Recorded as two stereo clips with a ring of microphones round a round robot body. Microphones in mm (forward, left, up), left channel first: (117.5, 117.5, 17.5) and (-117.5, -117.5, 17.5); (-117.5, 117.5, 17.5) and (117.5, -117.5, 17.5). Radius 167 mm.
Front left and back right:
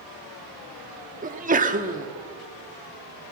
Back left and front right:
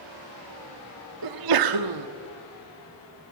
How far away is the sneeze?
About 1.5 m.